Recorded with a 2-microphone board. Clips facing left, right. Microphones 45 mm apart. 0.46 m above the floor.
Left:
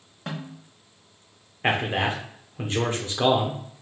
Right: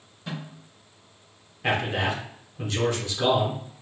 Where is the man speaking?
35° left (ahead or behind), 0.8 m.